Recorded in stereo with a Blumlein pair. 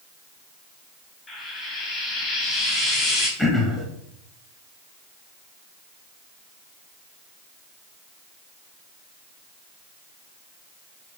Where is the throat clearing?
5° left, 1.8 m.